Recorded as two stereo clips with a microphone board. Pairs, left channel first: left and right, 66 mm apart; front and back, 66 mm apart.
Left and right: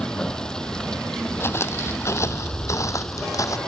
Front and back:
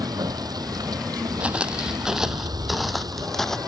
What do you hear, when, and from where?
0.0 s running water: 170° left
1.4 s footsteps: 115° left; by 3.6 s 80° left